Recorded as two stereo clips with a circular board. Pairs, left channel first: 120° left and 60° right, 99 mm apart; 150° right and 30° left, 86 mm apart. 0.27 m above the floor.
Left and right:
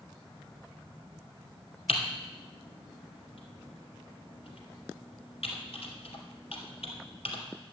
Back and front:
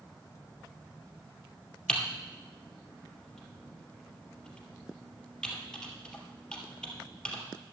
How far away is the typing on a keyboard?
About 2.5 m.